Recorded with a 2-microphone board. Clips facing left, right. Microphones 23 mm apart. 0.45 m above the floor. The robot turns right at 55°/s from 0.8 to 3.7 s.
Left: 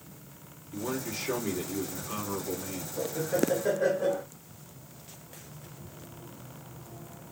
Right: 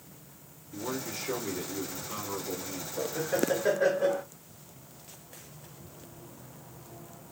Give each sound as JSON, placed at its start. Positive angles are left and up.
{"t": 0.7, "sound": "a man speaking", "side_deg": 5, "distance_m": 1.4}
{"t": 3.0, "sound": "laughter", "side_deg": -25, "distance_m": 0.8}